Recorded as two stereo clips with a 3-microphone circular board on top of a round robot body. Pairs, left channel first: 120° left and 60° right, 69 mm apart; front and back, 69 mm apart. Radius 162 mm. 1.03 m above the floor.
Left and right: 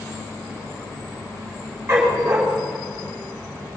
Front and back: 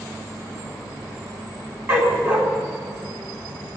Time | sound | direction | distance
1.9 | a dog barking | 120° right | 3.5 m